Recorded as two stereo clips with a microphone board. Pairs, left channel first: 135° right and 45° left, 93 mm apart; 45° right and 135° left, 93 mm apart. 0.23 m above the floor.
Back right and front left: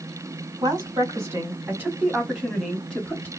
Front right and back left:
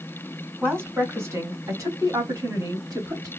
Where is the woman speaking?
75° left, 1.9 m; by 3.3 s 165° left, 1.6 m.